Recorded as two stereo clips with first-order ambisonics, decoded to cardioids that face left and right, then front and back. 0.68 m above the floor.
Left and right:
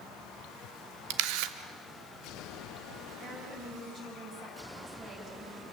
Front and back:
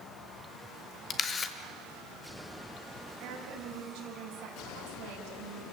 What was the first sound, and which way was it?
A camera shutter, 65° right.